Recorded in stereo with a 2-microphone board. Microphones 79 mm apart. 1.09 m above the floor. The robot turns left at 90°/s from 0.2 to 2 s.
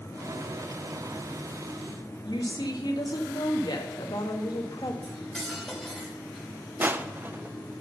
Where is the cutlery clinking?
5° left (ahead or behind), 3 m.